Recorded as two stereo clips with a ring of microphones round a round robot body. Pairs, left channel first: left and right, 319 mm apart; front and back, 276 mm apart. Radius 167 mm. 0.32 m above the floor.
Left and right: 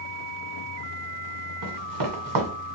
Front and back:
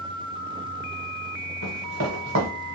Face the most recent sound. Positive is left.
turn(degrees=-130)